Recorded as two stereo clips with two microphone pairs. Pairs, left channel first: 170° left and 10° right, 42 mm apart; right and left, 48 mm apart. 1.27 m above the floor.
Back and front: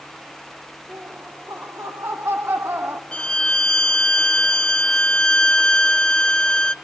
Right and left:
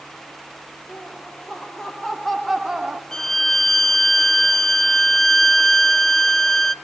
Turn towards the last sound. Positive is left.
turn(degrees=-155)